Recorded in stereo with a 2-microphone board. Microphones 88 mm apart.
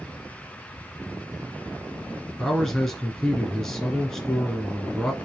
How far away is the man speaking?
About 1.5 m.